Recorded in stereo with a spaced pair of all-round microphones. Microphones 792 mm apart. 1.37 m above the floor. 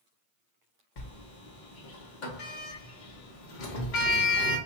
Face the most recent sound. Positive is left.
turn(degrees=70)  # may be behind; listen again after turning